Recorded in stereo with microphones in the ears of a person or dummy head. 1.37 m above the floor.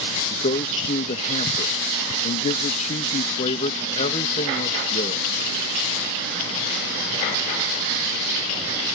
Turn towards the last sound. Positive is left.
turn(degrees=35)  # may be behind; listen again after turning